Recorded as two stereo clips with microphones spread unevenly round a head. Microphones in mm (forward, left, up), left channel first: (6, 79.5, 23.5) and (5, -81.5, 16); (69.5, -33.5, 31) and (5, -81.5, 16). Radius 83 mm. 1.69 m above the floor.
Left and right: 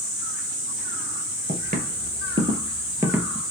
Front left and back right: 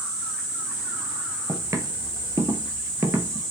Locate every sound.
1.5 s footsteps: 95° right, 2 m; by 3.4 s 160° right, 1.7 m